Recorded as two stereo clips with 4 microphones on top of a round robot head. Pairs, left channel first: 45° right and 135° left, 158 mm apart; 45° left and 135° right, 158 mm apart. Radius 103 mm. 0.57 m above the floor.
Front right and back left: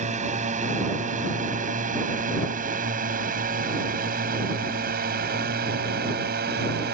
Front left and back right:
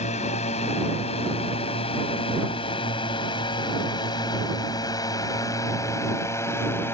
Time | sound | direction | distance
0.0 | a drone | 95° left | ?